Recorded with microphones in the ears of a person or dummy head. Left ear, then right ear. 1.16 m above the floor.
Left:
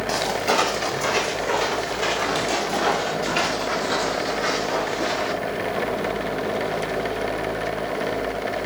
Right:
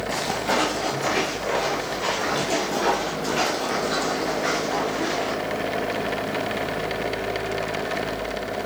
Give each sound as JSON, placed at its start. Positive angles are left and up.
{"t": 0.1, "sound": "footsteps", "side_deg": 30, "distance_m": 3.5}